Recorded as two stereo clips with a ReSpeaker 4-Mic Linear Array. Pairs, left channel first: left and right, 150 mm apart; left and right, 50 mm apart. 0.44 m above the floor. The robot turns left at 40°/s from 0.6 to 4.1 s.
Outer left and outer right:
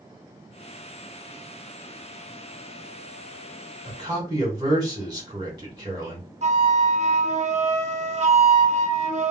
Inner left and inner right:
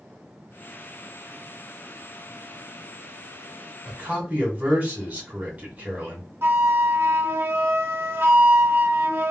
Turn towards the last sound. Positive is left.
turn(degrees=-50)  # may be behind; listen again after turning